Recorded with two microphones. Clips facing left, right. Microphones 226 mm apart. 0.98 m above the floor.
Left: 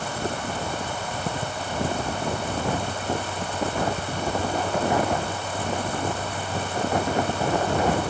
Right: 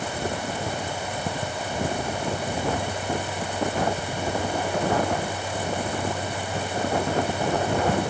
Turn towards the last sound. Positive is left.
No sound to turn to.